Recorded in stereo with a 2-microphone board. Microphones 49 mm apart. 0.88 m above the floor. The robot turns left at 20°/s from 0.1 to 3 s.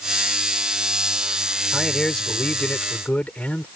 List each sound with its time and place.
1.7 s a man speaking: 5° left (ahead or behind); by 3.7 s 30° left (ahead or behind)